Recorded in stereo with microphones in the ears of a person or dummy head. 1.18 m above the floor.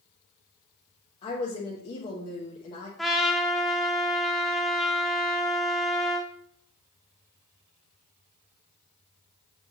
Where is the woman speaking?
30° left (ahead or behind), 1.1 m.